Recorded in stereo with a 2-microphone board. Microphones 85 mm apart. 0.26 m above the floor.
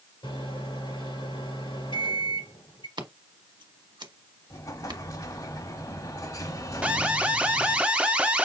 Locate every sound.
0.2 s a microwave: 70° left (ahead or behind), 4 m
3.0 s scissors: 60° right (ahead or behind), 1.2 m
4.5 s an explosion: 45° left (ahead or behind), 1.2 m
6.8 s an alarm: 15° right (ahead or behind), 0.8 m